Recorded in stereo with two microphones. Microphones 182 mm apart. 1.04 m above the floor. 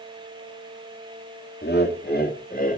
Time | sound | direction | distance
1.6 | laughter | 70° left (ahead or behind) | 2.5 m